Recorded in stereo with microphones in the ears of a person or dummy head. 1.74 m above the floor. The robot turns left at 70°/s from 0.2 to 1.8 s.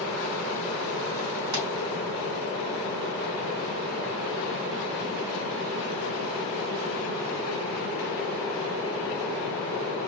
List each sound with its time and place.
1.5 s a pop: 70° right (ahead or behind), 3.5 m; by 1.7 s 65° right (ahead or behind), 3.5 m